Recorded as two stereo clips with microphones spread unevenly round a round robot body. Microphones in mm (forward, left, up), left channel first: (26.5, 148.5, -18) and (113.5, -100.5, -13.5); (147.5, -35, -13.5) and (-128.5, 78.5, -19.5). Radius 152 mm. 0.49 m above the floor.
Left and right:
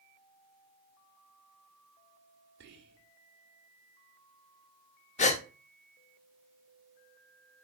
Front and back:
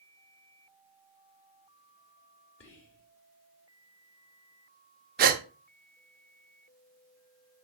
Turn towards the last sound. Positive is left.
turn(degrees=145)